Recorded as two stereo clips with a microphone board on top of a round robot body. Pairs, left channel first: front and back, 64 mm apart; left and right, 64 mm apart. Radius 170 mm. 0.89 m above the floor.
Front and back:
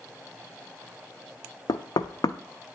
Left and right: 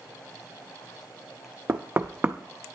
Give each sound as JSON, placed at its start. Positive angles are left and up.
{"t": 1.7, "sound": "knocking", "azimuth_deg": -20, "distance_m": 0.6}